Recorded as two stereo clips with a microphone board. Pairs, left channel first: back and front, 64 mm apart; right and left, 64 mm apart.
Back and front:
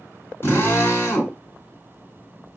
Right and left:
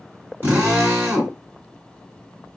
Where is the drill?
140° left, 2 m.